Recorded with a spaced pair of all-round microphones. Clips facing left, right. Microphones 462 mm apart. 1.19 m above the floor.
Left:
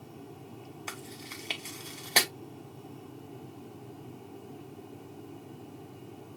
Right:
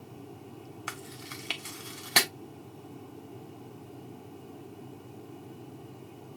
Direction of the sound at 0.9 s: 30° right (ahead or behind).